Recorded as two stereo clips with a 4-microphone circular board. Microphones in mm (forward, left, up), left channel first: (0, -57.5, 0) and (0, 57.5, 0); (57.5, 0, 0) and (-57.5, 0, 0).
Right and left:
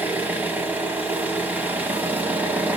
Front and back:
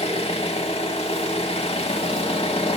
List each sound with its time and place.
0.0 s an engine running: 15° left, 1.1 m